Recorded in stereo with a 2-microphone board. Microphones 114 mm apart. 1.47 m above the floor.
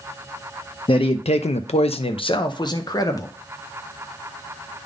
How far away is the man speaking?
About 0.5 m.